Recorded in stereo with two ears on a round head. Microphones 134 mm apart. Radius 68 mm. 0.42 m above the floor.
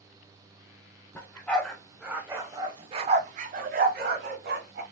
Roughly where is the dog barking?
Centre.